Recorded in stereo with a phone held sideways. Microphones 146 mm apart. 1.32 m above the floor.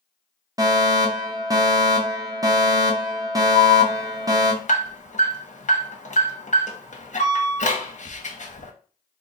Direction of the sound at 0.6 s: 25° right (ahead or behind).